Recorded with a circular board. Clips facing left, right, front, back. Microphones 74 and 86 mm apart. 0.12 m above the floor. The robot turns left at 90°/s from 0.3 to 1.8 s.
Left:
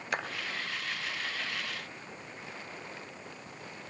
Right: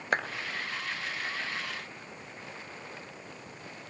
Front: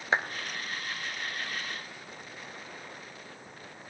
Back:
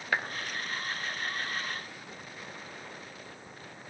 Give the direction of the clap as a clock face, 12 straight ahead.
2 o'clock.